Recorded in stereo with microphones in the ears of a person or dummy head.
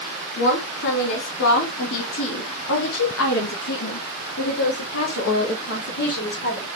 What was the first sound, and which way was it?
A woman speaking, 70° left (ahead or behind).